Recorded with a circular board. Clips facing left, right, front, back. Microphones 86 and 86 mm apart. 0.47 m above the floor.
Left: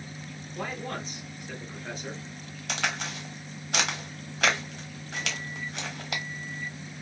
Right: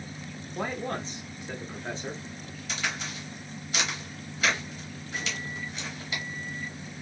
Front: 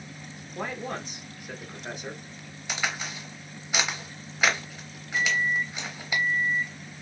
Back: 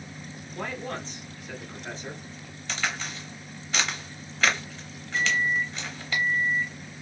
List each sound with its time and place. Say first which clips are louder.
0.6 s a man speaking: right 3 dB, front 1 dB; 65° right, 0.9 m
2.7 s a crack: left 3 dB, even; 75° left, 1.0 m
5.1 s a microwave: even, even; 75° right, 1.1 m